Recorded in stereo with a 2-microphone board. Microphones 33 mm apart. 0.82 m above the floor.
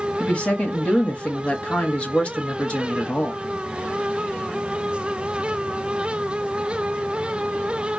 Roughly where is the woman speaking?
Left.